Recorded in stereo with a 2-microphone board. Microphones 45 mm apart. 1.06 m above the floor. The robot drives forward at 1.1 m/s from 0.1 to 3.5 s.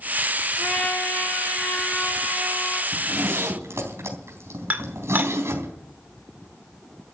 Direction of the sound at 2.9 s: 80° right.